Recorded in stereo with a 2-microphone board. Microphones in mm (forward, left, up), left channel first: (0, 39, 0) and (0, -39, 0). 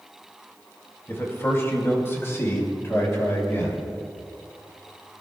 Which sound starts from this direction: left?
A man speaking, at 1.1 s.